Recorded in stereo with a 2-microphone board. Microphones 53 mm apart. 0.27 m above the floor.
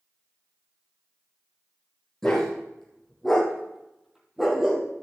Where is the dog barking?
10° left (ahead or behind), 3.5 m; by 4.9 s 10° right (ahead or behind), 2.5 m.